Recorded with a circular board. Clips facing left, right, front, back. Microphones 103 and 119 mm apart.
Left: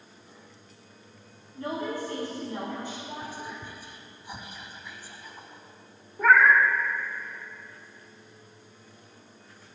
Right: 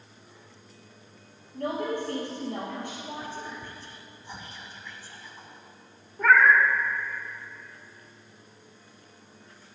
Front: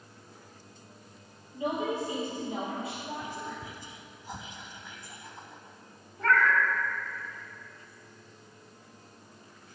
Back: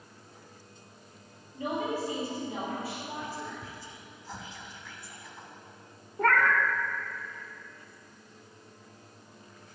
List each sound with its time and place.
1.5 s a woman speaking: 70° right, 3.5 m; by 3.6 s 65° right, 4.5 m
3.2 s whispering: 35° left, 1.0 m
6.2 s a cat meowing: 175° left, 0.5 m